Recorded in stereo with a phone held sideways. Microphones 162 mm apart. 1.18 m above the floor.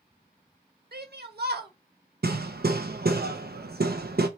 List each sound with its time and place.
0.9 s a shout: 80° right, 1.3 m
2.2 s hammering: 75° right (ahead or behind), 0.7 m